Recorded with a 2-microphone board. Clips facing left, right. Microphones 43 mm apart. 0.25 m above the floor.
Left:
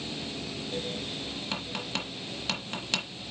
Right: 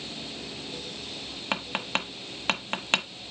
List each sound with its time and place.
1.5 s tapping: 45° right (ahead or behind), 1.0 m